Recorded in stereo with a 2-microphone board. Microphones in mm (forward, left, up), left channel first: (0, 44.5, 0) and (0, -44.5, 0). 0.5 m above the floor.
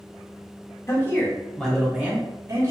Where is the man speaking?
35° left (ahead or behind), 1.1 m; by 2.7 s 40° right (ahead or behind), 1.0 m.